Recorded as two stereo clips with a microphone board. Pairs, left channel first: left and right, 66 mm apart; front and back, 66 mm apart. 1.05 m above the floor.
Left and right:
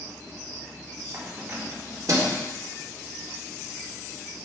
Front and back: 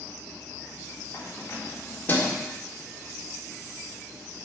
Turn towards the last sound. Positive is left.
turn(degrees=-65)